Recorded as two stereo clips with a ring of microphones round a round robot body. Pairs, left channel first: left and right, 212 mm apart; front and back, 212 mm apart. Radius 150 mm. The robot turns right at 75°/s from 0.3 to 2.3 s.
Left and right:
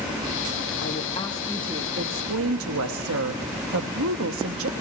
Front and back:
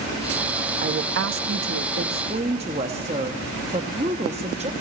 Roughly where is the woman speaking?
Behind left.